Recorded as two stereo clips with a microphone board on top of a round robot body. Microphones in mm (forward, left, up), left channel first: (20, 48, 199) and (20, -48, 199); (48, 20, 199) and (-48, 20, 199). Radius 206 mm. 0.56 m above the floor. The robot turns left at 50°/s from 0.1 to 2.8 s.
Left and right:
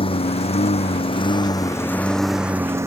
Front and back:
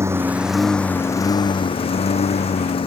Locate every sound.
0.0 s a lawn mower: 120° left; by 2.9 s 30° right